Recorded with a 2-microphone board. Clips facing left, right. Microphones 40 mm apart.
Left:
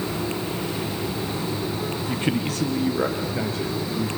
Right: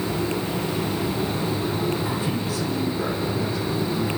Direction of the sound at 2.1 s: 50° left (ahead or behind).